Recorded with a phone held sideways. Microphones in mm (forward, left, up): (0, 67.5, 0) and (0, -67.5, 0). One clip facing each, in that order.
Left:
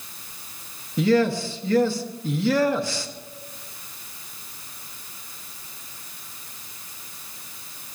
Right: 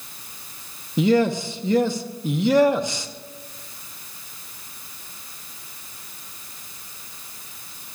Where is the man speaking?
20° right (ahead or behind), 1.0 m.